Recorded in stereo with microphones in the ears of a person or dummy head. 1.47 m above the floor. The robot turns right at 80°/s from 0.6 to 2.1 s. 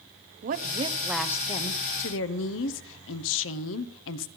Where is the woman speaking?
45° right, 0.9 m; by 4.3 s 75° left, 0.9 m.